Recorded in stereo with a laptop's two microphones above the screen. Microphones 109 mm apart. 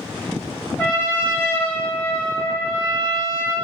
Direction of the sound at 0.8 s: 15° left (ahead or behind).